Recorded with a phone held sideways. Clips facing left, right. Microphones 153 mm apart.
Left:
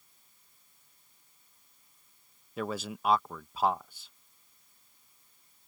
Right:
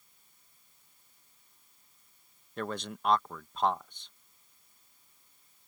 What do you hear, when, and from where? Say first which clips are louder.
2.6 s a man speaking: left 1 dB; 5° left (ahead or behind)